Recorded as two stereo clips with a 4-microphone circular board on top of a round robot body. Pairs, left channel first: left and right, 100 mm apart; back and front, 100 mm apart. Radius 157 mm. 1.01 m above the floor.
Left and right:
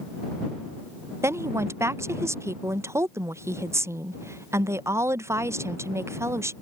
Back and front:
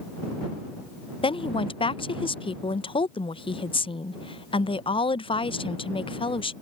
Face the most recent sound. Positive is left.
turn(degrees=-150)